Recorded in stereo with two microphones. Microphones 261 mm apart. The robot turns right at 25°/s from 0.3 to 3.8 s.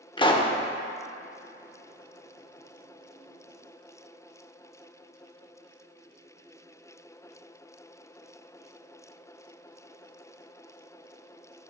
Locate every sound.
0.2 s a pop: 20° left (ahead or behind), 0.5 m; by 0.5 s 25° left (ahead or behind), 0.5 m